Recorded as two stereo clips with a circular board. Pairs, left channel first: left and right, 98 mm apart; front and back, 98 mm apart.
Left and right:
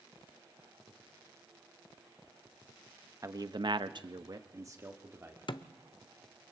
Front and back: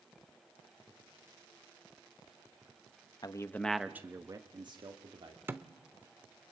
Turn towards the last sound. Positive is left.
turn(degrees=115)